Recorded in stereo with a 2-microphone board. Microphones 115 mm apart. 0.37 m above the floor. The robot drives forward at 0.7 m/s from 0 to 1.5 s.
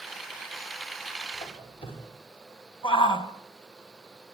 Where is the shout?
50° left (ahead or behind), 2 m.